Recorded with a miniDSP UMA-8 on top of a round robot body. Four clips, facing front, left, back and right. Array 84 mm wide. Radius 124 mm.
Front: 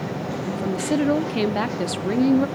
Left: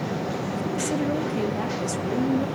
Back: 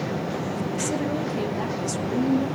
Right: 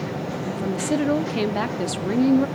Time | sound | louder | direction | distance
0.5 | a woman speaking | right 5 dB, front 3 dB | 35° right | 1.1 m